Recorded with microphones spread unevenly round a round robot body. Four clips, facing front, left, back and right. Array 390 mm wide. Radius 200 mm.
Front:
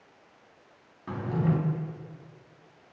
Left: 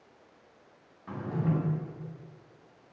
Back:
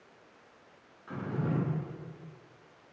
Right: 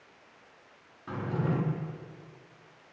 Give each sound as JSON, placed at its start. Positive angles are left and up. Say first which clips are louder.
{"t": 1.1, "sound": "a drawer", "louder": "even, front 5 dB", "azimuth_deg": -15, "distance_m": 2.0}